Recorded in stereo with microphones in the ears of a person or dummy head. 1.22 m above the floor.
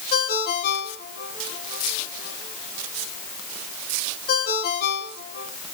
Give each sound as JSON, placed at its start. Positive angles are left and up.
{"t": 0.1, "sound": "a ringtone", "side_deg": 55, "distance_m": 2.0}